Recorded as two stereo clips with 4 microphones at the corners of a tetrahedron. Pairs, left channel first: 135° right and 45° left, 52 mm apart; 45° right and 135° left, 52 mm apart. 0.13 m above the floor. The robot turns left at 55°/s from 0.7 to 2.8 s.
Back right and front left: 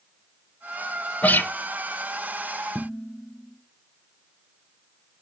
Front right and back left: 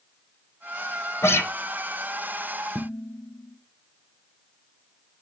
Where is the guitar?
75° right, 0.7 m; by 1.5 s 90° right, 0.7 m.